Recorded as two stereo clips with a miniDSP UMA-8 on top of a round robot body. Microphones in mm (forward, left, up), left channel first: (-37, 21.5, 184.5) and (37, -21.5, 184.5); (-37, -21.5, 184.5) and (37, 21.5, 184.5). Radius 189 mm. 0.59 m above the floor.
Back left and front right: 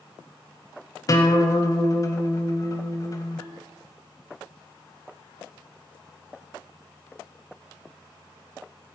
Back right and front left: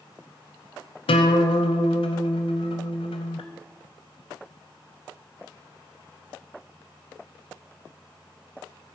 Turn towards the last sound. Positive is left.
turn(degrees=-155)